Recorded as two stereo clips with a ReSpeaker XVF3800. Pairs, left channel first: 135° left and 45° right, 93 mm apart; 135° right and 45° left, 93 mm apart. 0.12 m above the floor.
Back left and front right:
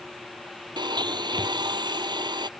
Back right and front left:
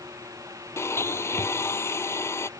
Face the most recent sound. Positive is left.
turn(degrees=-75)